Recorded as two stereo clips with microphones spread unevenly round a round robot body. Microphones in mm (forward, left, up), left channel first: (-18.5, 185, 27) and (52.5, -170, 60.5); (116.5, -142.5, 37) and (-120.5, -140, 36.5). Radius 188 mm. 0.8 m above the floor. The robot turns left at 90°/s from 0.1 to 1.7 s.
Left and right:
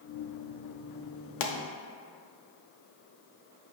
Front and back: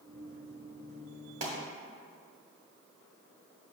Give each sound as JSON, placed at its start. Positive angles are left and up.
{"t": 1.4, "sound": "a pop", "azimuth_deg": 110, "distance_m": 0.9}